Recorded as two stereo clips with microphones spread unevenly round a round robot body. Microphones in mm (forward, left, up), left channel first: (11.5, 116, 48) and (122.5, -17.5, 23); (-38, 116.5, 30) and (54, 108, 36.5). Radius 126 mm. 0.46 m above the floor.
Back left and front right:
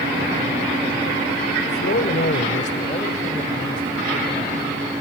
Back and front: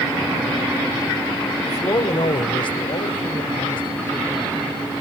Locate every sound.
1.6 s a man speaking: 145° left, 2.5 m; by 5.0 s 145° right, 5 m